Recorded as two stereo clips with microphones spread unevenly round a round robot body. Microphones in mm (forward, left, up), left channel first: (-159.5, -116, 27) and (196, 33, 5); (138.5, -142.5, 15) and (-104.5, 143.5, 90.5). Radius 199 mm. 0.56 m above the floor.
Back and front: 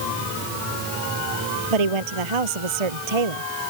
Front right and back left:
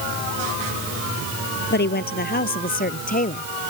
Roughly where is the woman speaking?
Ahead.